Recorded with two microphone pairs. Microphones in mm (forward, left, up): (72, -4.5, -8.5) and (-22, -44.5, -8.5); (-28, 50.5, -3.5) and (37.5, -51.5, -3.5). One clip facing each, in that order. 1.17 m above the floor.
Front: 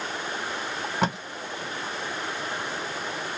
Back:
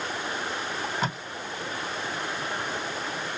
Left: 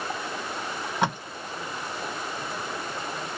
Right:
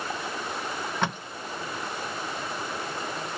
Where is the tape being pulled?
45° left, 1.4 m.